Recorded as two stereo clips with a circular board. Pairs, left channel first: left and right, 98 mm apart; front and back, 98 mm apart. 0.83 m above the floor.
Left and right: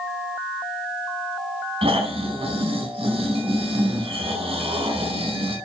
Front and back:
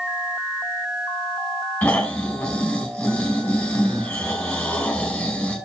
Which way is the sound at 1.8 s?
80° right.